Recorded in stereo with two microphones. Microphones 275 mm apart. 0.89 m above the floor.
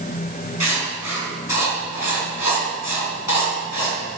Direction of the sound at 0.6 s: 85° left.